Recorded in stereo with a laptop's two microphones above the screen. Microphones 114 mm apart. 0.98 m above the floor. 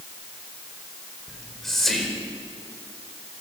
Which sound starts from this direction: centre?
Whispering, at 1.3 s.